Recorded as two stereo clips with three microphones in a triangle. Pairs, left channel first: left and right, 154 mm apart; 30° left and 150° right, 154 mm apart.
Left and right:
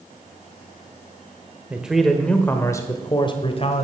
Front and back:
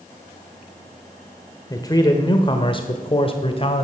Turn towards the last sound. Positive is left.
turn(degrees=65)